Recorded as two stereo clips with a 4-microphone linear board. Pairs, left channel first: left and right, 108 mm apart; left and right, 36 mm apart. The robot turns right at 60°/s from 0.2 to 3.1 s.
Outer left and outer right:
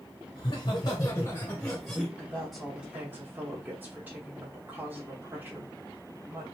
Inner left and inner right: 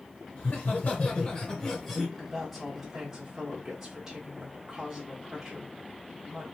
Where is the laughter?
90° left, 1.7 m; by 2.1 s 170° right, 1.7 m.